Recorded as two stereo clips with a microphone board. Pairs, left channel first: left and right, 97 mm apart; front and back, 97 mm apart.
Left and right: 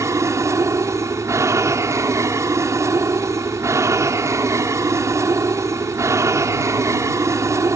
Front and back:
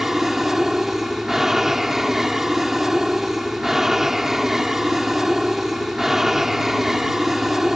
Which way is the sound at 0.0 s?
100° right.